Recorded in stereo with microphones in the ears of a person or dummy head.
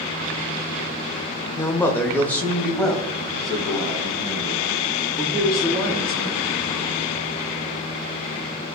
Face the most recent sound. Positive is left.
turn(degrees=0)  # may be behind; listen again after turning